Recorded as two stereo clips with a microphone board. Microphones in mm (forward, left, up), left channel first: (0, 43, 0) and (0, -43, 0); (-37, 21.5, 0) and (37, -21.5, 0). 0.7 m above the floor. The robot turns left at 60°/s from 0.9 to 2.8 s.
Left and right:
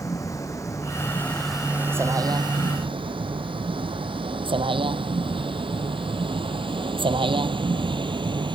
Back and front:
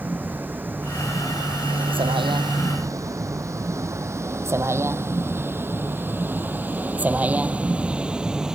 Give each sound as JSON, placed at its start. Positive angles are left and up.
{"t": 0.0, "sound": "a vehicle", "azimuth_deg": 40}